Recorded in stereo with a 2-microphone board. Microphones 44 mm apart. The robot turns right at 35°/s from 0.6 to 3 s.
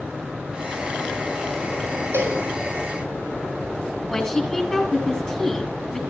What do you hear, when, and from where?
2.1 s a cowbell: 55° right (ahead or behind), 6 m; by 2.4 s 65° right (ahead or behind), 6 m
4.1 s a woman speaking: centre (ahead or behind), 7.5 m